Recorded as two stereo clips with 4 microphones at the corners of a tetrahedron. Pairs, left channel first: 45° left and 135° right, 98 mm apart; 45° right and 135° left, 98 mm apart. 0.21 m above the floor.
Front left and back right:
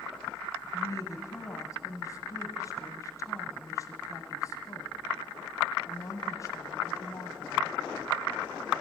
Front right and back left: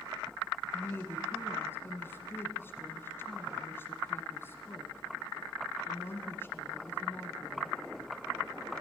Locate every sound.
0.7 s a woman speaking: 10° left, 1.5 m